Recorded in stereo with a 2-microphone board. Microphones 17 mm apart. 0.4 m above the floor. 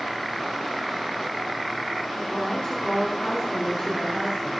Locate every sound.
2.2 s a woman speaking: 55° left (ahead or behind), 3 m